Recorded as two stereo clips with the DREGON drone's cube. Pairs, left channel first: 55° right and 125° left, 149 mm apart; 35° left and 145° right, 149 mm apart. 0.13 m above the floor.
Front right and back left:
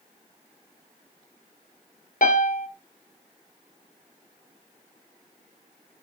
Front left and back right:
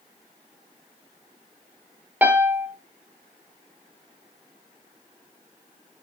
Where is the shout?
No shout in this recording.